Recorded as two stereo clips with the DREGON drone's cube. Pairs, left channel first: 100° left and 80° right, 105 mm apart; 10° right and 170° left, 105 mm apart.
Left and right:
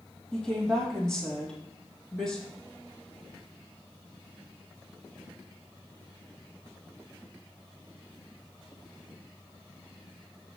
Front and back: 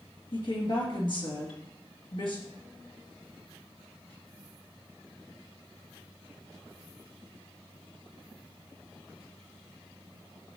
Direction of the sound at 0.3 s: 20° left.